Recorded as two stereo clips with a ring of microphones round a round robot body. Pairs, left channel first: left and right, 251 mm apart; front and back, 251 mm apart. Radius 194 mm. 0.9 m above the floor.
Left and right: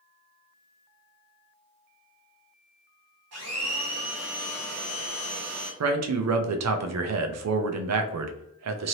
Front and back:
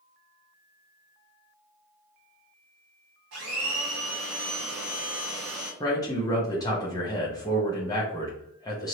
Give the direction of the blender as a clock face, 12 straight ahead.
4 o'clock.